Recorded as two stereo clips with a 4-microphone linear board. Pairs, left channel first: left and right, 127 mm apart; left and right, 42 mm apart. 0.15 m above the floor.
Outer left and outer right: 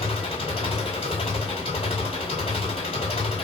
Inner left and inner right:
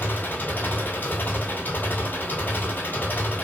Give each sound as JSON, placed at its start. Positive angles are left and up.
{"t": 0.0, "sound": "an engine running", "side_deg": 50, "distance_m": 0.9}